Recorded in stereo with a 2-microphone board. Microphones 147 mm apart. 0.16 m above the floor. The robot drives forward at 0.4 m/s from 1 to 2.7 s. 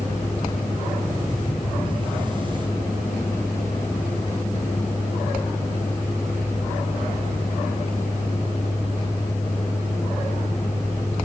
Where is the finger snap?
I don't hear a finger snap.